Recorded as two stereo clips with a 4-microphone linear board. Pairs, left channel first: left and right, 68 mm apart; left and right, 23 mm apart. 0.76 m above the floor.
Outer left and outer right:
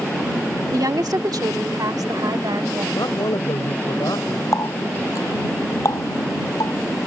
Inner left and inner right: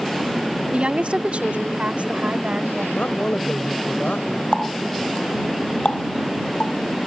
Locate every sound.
0.7 s a woman speaking: 65° right (ahead or behind); by 2.9 s 80° right
3.0 s a woman speaking: 80° left
4.5 s a running tap: 55° left (ahead or behind)